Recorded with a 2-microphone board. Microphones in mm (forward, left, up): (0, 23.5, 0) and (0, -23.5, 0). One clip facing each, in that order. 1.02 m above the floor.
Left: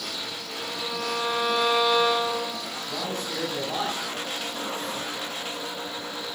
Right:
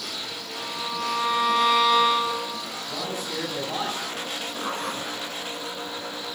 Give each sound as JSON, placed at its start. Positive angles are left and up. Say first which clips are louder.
{"t": 0.6, "sound": "a violin", "louder": "right 1 dB", "side_deg": -70, "distance_m": 5.5}
{"t": 2.9, "sound": "a man speaking", "louder": "even", "side_deg": -5, "distance_m": 6.5}
{"t": 4.6, "sound": "a zipper", "louder": "right 2 dB", "side_deg": -55, "distance_m": 2.0}